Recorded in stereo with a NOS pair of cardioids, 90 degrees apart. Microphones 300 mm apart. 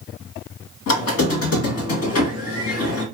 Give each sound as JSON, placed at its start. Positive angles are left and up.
{"t": 0.9, "sound": "a squeak", "azimuth_deg": 65, "distance_m": 1.4}